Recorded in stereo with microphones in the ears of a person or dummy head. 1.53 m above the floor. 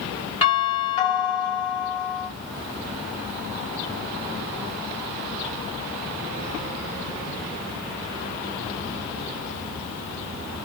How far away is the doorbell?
About 2.5 m.